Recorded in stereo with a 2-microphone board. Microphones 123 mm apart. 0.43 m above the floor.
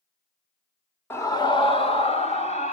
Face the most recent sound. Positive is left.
turn(degrees=70)  # may be behind; listen again after turning